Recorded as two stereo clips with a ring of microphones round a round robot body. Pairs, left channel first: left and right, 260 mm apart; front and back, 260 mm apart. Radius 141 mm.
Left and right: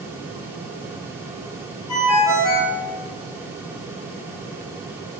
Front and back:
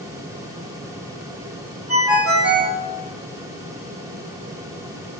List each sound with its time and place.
1.9 s a ringtone: 95° left, 1.9 m